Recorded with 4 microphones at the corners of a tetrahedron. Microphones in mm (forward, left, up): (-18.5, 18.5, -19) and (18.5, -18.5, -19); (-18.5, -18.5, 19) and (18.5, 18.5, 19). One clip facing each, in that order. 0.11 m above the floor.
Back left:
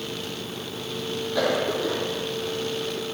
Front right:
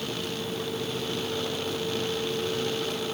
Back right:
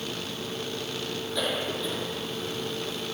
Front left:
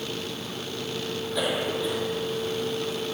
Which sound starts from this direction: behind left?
A cough, at 1.4 s.